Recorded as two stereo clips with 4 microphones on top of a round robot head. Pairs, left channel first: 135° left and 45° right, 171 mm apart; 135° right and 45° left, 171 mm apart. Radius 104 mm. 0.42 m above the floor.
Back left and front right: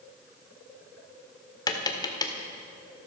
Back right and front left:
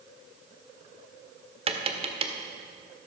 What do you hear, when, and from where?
1.7 s tapping: 80° left, 1.6 m